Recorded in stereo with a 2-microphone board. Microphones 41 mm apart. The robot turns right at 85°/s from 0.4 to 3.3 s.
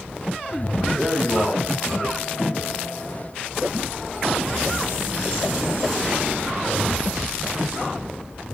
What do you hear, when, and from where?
0.9 s a man speaking: 10° right, 2 m; by 2.8 s 150° left, 2 m